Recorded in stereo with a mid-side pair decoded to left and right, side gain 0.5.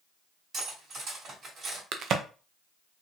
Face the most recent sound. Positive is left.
turn(degrees=-60)